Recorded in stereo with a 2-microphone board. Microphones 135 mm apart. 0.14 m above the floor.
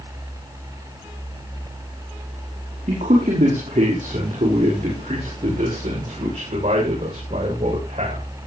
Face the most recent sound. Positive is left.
turn(degrees=-55)  # may be behind; listen again after turning